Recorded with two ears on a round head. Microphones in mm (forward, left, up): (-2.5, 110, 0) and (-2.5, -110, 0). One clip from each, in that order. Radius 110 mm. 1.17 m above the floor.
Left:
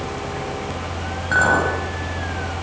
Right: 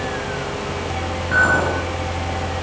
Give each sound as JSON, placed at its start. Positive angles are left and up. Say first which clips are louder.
{"t": 1.3, "sound": "a clink", "louder": "right 1 dB", "side_deg": 25, "distance_m": 6.5}